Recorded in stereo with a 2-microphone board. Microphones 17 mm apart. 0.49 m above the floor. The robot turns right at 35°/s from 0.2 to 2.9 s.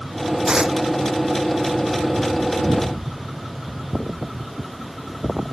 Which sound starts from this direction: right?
Tearing paper, at 0.5 s.